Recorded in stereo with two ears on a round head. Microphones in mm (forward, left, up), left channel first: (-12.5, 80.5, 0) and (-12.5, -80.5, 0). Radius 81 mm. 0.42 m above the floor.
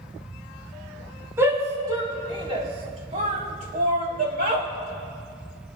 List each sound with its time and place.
1.4 s a shout: 15° right (ahead or behind), 3.5 m; by 4.7 s 60° right (ahead or behind), 3 m